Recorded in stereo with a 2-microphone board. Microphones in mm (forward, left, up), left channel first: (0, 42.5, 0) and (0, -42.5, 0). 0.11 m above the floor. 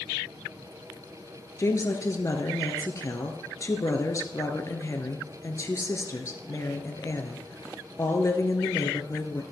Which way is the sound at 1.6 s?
35° left (ahead or behind).